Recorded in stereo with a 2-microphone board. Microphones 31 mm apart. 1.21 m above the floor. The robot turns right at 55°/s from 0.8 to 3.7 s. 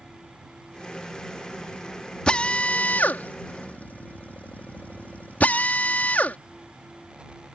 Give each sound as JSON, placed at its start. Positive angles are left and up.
{"t": 2.3, "sound": "a drill", "side_deg": 35}